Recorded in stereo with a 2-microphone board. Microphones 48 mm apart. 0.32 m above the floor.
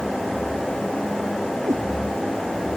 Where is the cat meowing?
75° right (ahead or behind).